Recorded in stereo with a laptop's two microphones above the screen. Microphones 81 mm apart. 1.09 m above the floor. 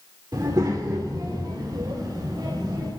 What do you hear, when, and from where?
0.3 s a child speaking: 55° right (ahead or behind), 1.5 m